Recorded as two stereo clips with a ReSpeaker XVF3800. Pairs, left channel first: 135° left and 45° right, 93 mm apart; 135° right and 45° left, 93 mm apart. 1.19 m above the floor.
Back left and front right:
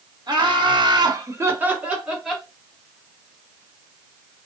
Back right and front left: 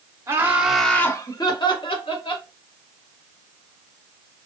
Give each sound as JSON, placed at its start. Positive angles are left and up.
{"t": 0.3, "sound": "laughter", "azimuth_deg": -10, "distance_m": 0.9}